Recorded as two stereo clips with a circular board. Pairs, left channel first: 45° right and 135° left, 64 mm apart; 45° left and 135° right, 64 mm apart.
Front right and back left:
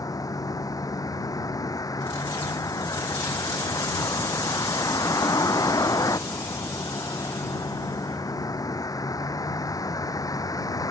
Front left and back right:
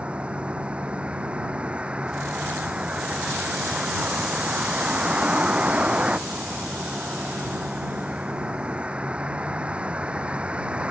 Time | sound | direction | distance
0.0 | a vehicle | 65° right | ?